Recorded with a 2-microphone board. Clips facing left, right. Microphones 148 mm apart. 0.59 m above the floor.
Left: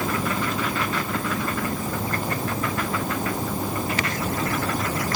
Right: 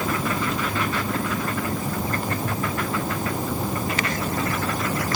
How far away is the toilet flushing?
I don't hear a toilet flushing.